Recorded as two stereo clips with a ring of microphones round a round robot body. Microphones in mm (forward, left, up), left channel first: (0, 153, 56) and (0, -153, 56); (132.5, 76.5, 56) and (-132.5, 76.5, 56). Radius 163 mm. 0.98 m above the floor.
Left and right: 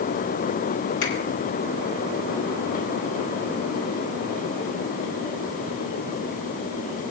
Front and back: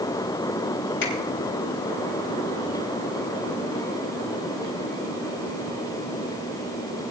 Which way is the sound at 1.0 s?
45° left.